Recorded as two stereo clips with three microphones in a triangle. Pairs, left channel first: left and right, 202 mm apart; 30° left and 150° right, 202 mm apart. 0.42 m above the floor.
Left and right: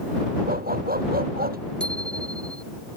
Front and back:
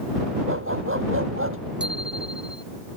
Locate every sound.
0.5 s a dog barking: 135° right
1.8 s a bicycle bell: 175° left